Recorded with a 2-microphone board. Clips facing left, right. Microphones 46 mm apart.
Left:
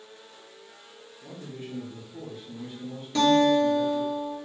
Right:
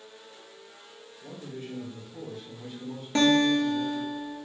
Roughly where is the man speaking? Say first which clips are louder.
Even; left.